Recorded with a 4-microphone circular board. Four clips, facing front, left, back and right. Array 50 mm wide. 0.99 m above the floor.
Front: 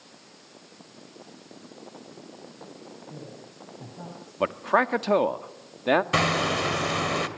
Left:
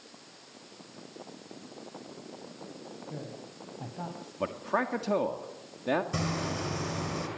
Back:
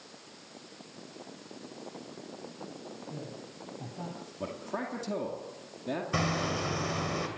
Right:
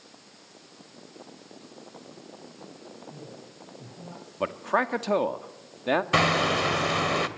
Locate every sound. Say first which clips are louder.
3.1 s a woman speaking: left 2 dB, even; 90° left, 5.5 m
4.4 s a man speaking: right 4 dB, front 14 dB; 20° right, 1.8 m
6.1 s hammering: right 10 dB, front 7 dB; 60° right, 2 m